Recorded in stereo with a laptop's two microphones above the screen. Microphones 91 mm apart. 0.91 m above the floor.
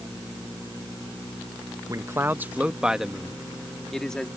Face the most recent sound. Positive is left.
turn(degrees=5)  # may be behind; listen again after turning